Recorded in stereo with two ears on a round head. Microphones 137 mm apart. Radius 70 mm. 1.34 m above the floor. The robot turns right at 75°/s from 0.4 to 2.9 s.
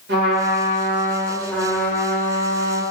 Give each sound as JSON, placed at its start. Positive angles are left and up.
{"t": 0.1, "sound": "a trumpet", "azimuth_deg": -80, "distance_m": 2.0}